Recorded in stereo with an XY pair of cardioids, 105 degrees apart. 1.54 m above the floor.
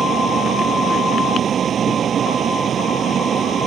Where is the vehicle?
55° right.